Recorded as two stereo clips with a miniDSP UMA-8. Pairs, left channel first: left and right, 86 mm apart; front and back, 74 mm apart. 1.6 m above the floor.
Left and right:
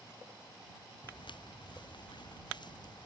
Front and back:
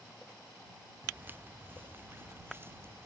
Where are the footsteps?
115° left; by 3.1 s 120° left.